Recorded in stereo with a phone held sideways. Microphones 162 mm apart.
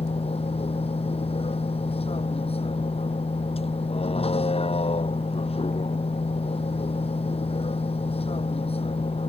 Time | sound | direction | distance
0.0 | a vehicle | 35° left (ahead or behind) | ?